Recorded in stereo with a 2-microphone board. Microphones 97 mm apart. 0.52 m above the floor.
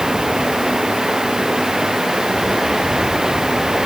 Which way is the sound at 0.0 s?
5° right (ahead or behind).